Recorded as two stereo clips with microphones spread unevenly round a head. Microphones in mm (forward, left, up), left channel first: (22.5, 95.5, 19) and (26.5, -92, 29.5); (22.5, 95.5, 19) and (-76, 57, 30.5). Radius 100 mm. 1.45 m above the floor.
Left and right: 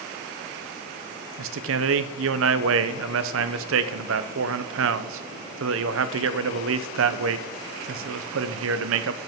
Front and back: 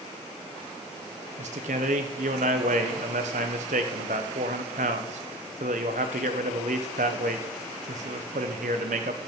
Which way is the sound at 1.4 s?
115° right.